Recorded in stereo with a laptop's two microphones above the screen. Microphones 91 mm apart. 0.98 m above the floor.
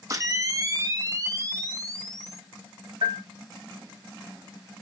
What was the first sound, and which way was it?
A camera shutter, 35° right (ahead or behind).